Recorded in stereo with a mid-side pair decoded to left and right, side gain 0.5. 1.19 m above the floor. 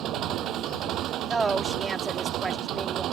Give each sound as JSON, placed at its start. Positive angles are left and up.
{"t": 0.0, "sound": "an engine running", "azimuth_deg": -70}
{"t": 1.3, "sound": "a woman speaking", "azimuth_deg": -30}